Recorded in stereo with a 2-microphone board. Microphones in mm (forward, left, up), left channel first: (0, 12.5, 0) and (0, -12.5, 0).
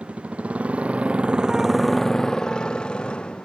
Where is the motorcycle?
85° right; by 3.5 s 55° left (ahead or behind).